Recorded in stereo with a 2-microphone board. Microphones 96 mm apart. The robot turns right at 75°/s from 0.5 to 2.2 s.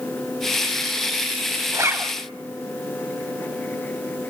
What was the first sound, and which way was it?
A zipper, 35° right (ahead or behind).